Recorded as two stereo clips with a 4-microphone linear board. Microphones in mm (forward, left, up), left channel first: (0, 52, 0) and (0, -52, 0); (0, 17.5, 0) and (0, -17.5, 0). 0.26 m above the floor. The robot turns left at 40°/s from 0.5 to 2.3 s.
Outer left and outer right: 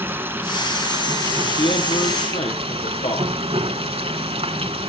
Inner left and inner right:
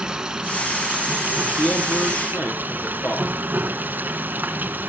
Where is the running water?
20° right, 1.3 m; by 4.9 s 95° right, 1.3 m.